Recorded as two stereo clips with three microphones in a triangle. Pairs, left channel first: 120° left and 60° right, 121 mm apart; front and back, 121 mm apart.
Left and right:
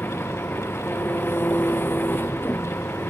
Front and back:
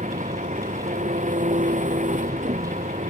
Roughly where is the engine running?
Behind.